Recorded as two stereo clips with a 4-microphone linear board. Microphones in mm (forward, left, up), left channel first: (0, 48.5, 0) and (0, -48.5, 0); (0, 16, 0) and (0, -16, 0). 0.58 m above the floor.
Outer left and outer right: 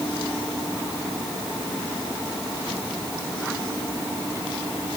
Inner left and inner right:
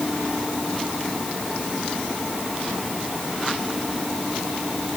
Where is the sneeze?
No sneeze in this recording.